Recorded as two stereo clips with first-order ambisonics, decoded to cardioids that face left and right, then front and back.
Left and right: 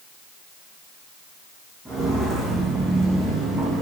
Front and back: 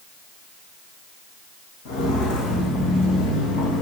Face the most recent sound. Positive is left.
turn(degrees=-20)